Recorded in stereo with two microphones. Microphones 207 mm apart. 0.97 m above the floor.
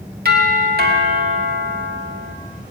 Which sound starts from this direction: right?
A doorbell, at 0.2 s.